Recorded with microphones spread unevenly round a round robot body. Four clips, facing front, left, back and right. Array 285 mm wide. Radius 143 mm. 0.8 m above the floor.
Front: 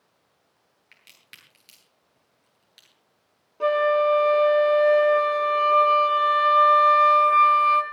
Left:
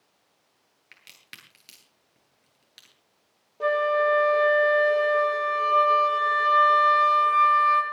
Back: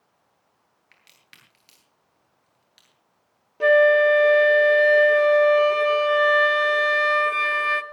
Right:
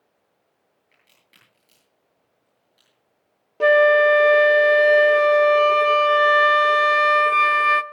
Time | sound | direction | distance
0.9 | a crack | 85° left | 10 m
3.6 | a flute | 115° right | 1.1 m